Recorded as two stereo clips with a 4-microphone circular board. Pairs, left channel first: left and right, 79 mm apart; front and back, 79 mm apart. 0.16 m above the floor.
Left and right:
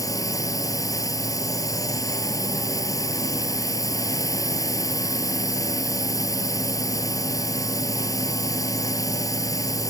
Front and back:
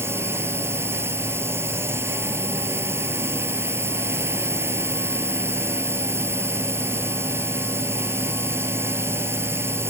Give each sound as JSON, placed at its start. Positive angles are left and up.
{"t": 0.0, "sound": "a drone", "azimuth_deg": 125}